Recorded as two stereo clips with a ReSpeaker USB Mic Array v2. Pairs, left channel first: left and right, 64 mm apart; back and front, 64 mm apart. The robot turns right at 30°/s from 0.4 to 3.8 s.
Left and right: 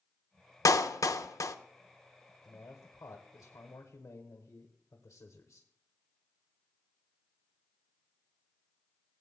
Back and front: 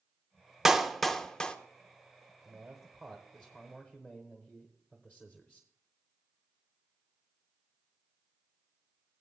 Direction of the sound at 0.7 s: 85° left.